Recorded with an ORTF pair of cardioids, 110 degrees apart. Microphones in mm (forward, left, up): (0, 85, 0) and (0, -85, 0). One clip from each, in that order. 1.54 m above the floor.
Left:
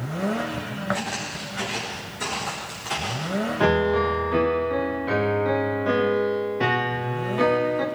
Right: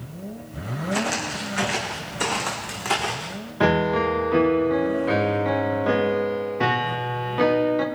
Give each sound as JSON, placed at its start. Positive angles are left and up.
{"t": 0.9, "sound": "footsteps", "azimuth_deg": -60, "distance_m": 5.0}
{"t": 3.6, "sound": "a piano", "azimuth_deg": -10, "distance_m": 1.4}